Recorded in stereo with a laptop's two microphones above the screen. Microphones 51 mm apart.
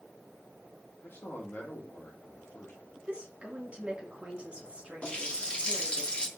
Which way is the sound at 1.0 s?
50° left (ahead or behind).